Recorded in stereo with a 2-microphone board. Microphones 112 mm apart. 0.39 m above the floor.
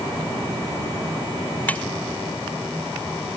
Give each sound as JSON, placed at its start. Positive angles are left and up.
{"t": 1.7, "sound": "cutlery clinking", "side_deg": 15}